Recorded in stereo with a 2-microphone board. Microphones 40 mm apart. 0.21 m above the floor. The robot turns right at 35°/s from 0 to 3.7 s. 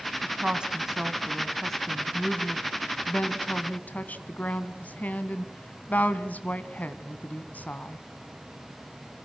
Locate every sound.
0.2 s a woman speaking: 45° right, 1.7 m; by 8.0 s 75° left, 1.7 m